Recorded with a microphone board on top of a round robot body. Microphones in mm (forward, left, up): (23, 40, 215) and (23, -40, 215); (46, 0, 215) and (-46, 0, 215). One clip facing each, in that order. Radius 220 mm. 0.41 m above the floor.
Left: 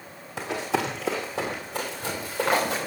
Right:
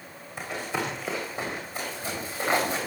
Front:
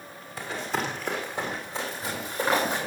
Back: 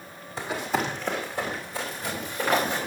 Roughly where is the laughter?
I don't hear laughter.